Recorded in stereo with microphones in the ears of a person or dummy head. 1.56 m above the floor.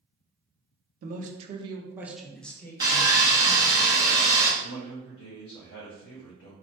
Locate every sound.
1.0 s a man speaking: 60° right (ahead or behind), 0.8 m; by 3.8 s 30° left (ahead or behind), 1.5 m
2.8 s sawing: 15° right (ahead or behind), 0.8 m
4.6 s a man speaking: 65° left (ahead or behind), 1.3 m